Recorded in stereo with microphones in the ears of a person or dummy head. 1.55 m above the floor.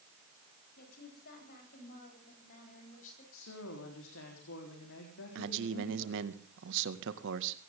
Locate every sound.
0.8 s a woman speaking: 60° left (ahead or behind), 8.5 m; by 3.2 s 50° left (ahead or behind), 10 m
3.3 s a woman speaking: 70° left (ahead or behind), 4 m
5.3 s a man speaking: 60° right (ahead or behind), 1.9 m